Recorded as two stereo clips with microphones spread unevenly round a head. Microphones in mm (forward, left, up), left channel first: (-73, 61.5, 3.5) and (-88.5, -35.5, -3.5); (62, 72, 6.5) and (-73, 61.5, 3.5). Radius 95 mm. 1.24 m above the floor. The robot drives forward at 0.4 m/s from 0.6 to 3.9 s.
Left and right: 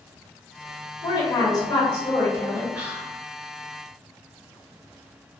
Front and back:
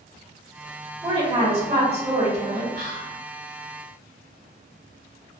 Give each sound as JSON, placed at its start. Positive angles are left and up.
{"t": 1.0, "sound": "a woman speaking", "azimuth_deg": 130, "distance_m": 1.2}
{"t": 2.7, "sound": "whispering", "azimuth_deg": -175, "distance_m": 1.1}